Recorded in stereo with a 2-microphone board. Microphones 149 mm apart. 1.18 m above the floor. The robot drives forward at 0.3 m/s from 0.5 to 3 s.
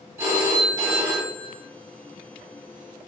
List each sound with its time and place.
0.2 s a phone ringing: 15° right (ahead or behind), 1.3 m; by 1.6 s 20° right (ahead or behind), 1.0 m